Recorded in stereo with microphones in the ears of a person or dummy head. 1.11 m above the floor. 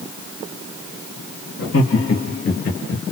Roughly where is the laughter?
Left.